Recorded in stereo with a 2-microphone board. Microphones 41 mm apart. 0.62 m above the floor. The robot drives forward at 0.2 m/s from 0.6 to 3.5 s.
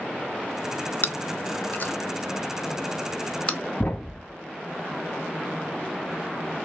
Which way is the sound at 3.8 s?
40° left (ahead or behind).